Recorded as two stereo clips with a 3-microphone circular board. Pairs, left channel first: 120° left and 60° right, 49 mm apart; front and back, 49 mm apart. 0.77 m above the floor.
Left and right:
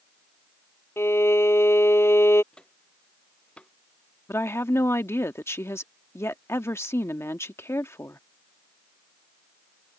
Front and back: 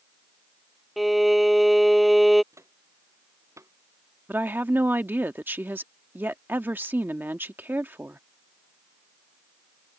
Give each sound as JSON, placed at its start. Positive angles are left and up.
{"t": 1.0, "sound": "a violin", "azimuth_deg": 90}
{"t": 2.5, "sound": "footsteps", "azimuth_deg": -170}
{"t": 4.3, "sound": "a woman speaking", "azimuth_deg": 140}